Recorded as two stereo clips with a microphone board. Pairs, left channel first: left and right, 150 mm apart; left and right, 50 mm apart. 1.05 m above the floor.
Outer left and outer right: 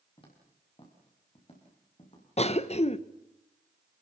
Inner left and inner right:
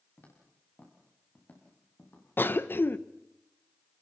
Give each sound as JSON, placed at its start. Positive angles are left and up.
{"t": 0.2, "sound": "footsteps", "side_deg": 35, "distance_m": 7.5}
{"t": 2.4, "sound": "a cough", "side_deg": 45, "distance_m": 1.0}